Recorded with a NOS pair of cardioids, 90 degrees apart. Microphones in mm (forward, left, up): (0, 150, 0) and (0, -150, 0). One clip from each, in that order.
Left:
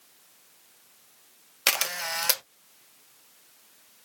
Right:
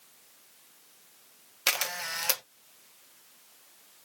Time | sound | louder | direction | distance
1.7 | a camera shutter | left 3 dB | 20° left | 0.7 m